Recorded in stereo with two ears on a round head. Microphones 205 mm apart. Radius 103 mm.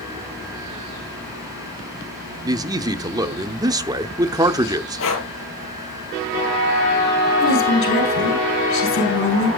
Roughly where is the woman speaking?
Left.